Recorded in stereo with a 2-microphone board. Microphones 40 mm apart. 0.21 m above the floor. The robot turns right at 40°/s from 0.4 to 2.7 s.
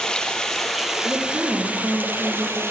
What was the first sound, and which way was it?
Running water, 165° left.